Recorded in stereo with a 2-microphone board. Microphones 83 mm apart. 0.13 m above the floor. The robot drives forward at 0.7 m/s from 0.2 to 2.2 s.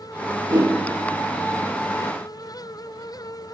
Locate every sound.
0.5 s a whoosh: 55° right (ahead or behind), 1.3 m; by 0.7 s 60° right (ahead or behind), 1.2 m